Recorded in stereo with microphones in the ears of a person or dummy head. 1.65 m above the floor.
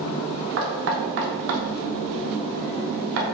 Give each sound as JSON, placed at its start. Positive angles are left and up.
{"t": 0.6, "sound": "knocking", "side_deg": -70, "distance_m": 0.8}